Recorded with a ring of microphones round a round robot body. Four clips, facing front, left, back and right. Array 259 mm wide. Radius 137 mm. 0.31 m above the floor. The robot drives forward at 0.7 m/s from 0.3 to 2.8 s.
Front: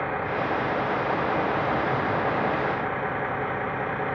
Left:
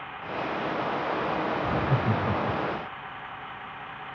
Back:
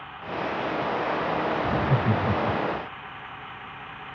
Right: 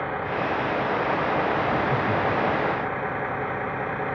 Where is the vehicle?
45° right.